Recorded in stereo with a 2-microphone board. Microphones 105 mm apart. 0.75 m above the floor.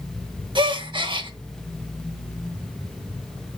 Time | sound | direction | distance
0.6 | a gasp | 50° right (ahead or behind) | 0.6 m